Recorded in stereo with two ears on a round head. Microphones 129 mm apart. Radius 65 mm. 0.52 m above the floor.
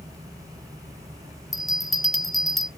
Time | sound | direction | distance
1.5 | a bell | centre (ahead or behind) | 0.7 m